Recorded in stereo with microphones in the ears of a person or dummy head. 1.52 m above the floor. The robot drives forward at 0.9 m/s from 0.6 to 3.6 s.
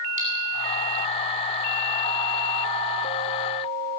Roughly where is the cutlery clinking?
Right.